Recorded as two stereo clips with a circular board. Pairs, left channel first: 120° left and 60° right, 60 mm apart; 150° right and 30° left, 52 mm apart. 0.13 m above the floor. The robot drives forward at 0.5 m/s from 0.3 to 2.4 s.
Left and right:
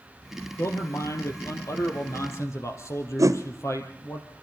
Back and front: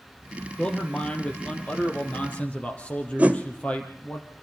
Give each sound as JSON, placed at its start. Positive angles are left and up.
{"t": 0.6, "sound": "a man speaking", "azimuth_deg": 135, "distance_m": 2.5}
{"t": 3.2, "sound": "a whoosh", "azimuth_deg": -35, "distance_m": 1.2}